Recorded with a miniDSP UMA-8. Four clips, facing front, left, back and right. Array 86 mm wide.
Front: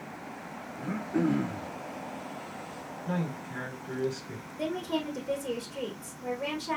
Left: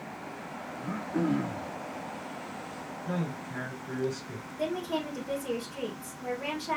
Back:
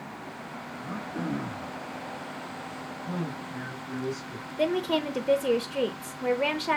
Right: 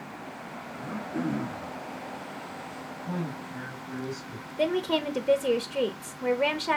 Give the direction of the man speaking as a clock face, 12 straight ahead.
11 o'clock.